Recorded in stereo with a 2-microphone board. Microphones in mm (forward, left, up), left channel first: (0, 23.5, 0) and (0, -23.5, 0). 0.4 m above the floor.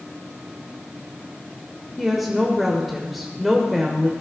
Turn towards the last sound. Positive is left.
turn(degrees=0)  # may be behind; listen again after turning